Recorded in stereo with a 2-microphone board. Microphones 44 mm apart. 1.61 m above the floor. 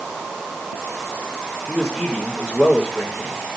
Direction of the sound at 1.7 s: 15° right (ahead or behind).